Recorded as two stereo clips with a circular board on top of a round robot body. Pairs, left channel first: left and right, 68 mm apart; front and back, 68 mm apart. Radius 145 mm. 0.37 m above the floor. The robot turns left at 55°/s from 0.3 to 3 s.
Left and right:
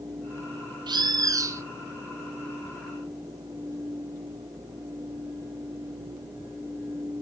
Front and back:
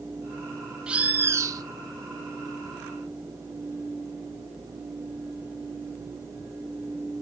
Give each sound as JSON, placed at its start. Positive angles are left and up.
{"t": 0.9, "sound": "a bird", "azimuth_deg": -100, "distance_m": 0.7}